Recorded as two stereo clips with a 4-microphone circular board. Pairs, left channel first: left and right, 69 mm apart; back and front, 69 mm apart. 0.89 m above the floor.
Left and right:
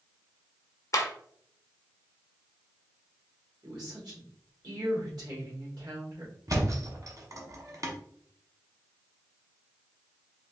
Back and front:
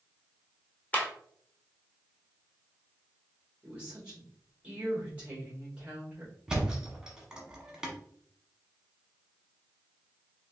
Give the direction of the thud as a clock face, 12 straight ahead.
3 o'clock.